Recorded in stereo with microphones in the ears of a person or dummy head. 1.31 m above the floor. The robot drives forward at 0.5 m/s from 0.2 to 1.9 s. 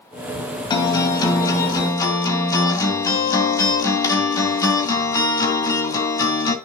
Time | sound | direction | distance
0.7 | a guitar | 25° left (ahead or behind) | 1.9 m